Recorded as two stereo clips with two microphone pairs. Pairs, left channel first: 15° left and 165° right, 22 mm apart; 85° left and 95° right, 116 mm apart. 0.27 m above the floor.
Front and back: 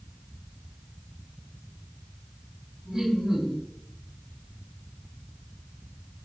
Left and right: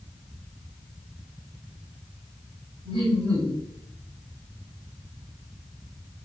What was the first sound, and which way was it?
Laughter, 110° right.